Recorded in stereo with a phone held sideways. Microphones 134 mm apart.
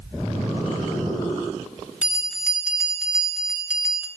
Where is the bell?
10° right (ahead or behind), 1.6 m.